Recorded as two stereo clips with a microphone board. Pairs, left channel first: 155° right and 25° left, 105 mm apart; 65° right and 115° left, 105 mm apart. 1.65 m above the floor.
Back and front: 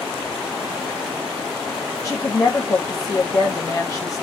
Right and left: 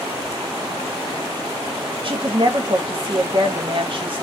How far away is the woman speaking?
About 1.4 m.